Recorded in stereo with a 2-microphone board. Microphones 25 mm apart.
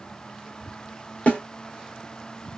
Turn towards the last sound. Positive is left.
turn(degrees=65)  # may be behind; listen again after turning